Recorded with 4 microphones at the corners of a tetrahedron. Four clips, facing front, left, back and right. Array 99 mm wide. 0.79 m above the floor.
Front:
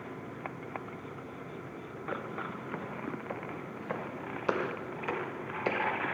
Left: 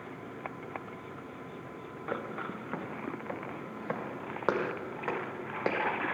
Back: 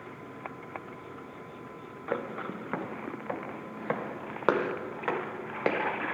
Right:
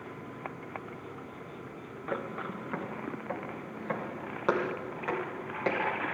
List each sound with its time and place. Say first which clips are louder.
2.1 s footsteps: right 1 dB, back 5 dB; straight behind, 3 m; by 6.1 s 165° left, 5 m